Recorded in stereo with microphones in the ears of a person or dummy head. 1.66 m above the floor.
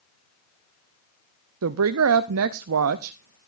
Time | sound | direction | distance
1.6 | a woman speaking | 80° right | 0.6 m